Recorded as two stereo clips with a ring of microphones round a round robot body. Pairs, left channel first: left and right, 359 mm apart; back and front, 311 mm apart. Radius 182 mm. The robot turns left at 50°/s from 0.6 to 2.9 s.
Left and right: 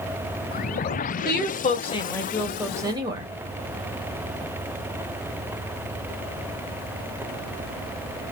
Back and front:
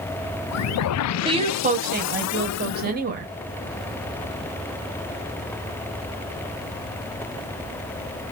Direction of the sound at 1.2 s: 60° left.